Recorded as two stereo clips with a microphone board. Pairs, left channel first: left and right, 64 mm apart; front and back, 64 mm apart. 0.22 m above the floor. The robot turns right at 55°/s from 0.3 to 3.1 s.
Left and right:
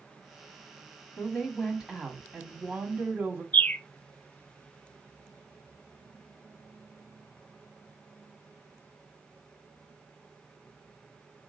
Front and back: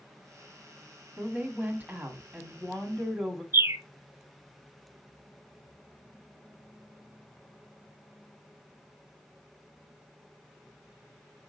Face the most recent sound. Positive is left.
turn(degrees=150)